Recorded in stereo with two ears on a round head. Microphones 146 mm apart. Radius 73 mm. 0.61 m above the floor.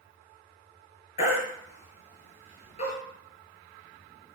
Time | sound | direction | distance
1.2 | a baby crying | 45° left (ahead or behind) | 6.5 m